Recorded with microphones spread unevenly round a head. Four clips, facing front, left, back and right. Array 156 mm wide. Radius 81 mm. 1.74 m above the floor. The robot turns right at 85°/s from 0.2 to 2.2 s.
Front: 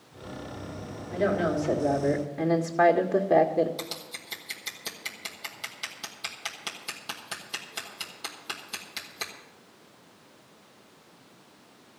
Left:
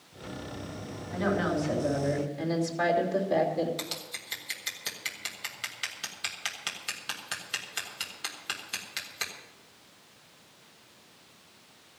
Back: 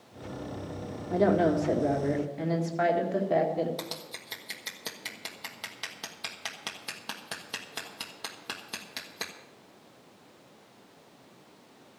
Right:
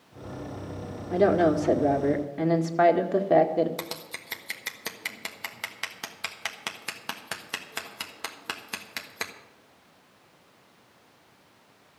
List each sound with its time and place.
1.1 s a woman speaking: 140° right, 2.0 m; by 3.7 s 45° right, 2.0 m
3.8 s scissors: 110° right, 1.3 m